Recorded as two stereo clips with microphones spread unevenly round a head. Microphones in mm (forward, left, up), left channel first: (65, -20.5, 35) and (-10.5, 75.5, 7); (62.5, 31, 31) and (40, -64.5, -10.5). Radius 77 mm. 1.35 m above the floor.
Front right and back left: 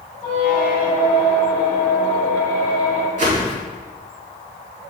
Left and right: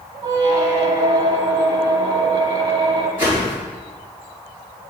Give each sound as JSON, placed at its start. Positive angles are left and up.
{"t": 0.2, "sound": "a squeak", "azimuth_deg": -50, "distance_m": 1.4}
{"t": 3.2, "sound": "a whoosh", "azimuth_deg": 140, "distance_m": 1.7}